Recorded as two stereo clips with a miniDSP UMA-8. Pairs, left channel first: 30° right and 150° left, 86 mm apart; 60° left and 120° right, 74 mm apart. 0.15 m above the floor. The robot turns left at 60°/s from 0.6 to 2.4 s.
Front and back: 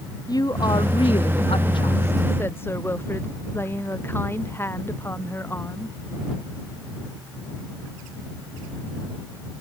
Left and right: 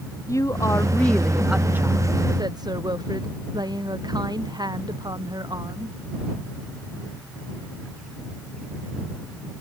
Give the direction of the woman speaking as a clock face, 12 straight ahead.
12 o'clock.